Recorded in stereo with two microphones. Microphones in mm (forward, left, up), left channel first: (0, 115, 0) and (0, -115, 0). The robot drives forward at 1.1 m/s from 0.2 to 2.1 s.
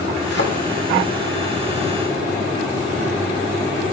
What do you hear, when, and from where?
0.3 s a thud: 50° left (ahead or behind), 3 m